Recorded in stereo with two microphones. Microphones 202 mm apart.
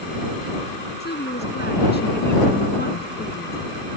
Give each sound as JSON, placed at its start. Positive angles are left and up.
{"t": 1.0, "sound": "a woman speaking", "side_deg": 55}